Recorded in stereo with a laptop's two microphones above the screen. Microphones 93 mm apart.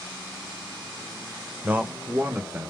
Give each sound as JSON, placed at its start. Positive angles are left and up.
{"t": 1.6, "sound": "a man speaking", "side_deg": -20, "distance_m": 0.8}